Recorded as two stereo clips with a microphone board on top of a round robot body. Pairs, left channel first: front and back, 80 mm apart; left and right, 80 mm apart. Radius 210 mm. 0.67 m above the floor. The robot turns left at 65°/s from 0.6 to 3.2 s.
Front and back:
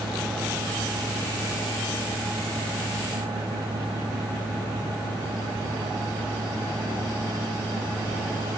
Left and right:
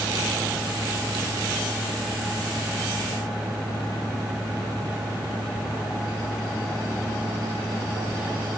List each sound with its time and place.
Only background noise.